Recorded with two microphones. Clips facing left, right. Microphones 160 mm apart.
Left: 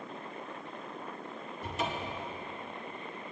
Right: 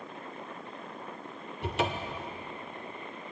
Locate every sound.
1.6 s a cupboard door: 70° right (ahead or behind), 0.7 m